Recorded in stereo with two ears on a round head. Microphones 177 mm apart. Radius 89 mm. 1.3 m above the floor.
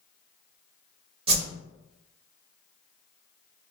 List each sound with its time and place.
1.3 s a whoosh: 30° right (ahead or behind), 1.1 m